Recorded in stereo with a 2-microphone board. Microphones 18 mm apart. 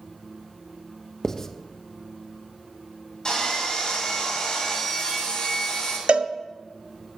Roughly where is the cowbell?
Right.